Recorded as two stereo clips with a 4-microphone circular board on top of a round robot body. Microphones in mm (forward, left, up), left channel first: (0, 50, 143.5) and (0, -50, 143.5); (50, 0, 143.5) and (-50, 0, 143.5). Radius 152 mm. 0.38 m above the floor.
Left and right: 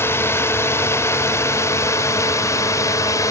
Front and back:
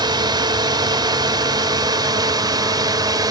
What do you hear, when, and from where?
0.0 s a drone: 150° left; by 3.3 s 140° left